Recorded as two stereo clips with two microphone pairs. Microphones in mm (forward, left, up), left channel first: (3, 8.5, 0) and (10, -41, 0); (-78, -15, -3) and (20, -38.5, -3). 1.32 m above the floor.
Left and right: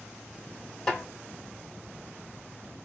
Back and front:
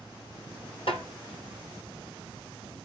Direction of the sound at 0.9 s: 175° left.